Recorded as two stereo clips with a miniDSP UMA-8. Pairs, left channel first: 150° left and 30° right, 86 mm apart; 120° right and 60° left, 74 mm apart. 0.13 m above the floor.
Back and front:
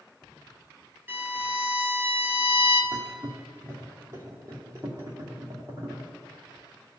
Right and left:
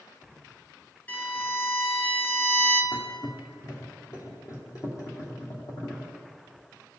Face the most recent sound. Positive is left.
turn(degrees=-85)